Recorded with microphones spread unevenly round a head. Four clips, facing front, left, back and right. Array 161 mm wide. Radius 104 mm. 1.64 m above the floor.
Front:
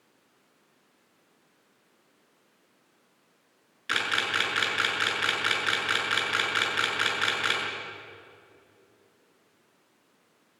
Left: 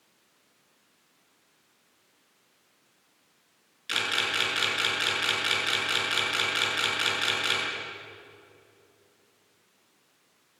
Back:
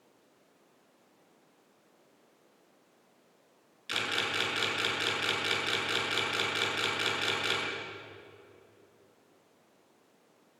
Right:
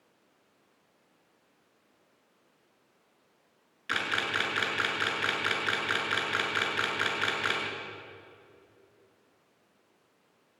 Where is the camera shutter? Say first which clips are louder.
Even, front 5 dB; 15° right, 7 m.